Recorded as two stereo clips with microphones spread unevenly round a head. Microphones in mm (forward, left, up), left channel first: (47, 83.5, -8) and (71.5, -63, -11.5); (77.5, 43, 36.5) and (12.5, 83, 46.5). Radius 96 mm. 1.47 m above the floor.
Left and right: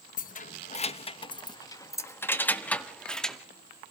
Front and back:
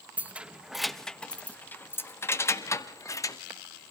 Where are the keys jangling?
90° left, 1.1 m; by 3.4 s 15° left, 2 m.